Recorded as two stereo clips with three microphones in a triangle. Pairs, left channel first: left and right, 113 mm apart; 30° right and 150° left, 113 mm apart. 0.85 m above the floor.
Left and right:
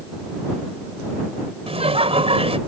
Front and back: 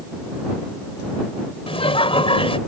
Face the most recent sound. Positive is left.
turn(degrees=-65)